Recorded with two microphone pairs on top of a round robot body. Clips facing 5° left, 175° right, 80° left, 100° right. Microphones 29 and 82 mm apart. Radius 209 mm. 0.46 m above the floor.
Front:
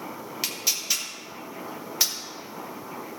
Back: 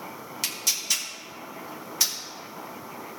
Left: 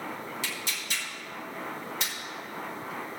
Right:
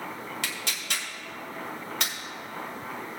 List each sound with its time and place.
0.4 s tearing paper: 70° right, 1.8 m